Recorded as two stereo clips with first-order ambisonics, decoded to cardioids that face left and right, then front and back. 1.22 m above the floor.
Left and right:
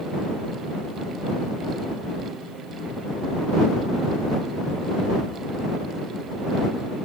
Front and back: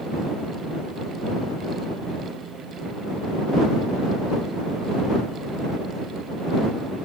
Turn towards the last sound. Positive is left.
No sound to turn to.